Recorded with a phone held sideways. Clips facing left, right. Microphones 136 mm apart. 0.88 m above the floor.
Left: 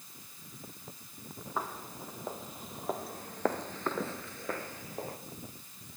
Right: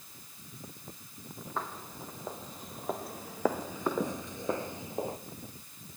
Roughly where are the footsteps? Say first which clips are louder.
Left 1 dB; centre.